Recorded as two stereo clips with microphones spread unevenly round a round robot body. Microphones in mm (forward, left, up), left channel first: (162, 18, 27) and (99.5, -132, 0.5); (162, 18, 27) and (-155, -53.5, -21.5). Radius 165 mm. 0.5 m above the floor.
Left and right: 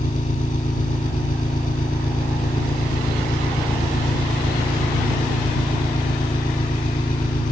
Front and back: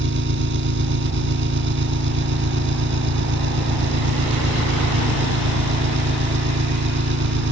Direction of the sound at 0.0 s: 135° left.